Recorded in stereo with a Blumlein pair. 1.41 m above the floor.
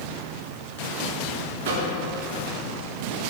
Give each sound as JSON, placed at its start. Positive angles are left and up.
{"t": 1.6, "sound": "a microwave", "azimuth_deg": -55, "distance_m": 1.4}